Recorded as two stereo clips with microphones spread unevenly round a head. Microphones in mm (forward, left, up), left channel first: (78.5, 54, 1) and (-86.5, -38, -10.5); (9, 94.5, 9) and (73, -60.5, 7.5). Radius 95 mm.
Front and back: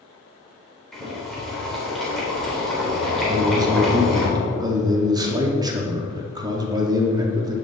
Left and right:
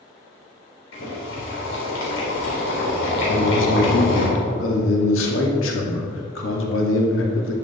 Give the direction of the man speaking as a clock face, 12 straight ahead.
7 o'clock.